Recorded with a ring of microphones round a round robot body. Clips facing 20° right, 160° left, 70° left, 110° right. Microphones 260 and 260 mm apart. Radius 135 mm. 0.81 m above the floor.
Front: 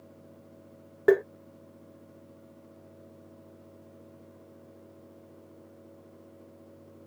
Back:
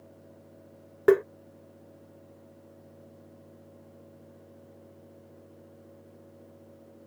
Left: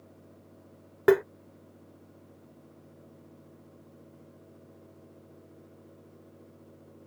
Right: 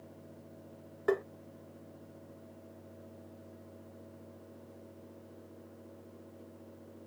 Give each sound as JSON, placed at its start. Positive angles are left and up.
{"t": 1.1, "sound": "tapping", "azimuth_deg": 80}